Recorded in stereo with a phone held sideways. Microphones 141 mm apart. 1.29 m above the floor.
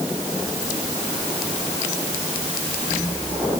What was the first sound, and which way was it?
Only background noise.